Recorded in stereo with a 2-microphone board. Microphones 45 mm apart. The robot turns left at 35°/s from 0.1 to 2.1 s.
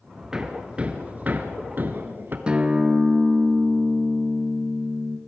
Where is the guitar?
20° right (ahead or behind), 1.4 m.